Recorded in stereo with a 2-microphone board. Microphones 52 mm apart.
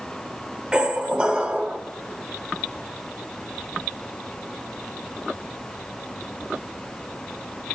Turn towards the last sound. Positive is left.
turn(degrees=-20)  # may be behind; listen again after turning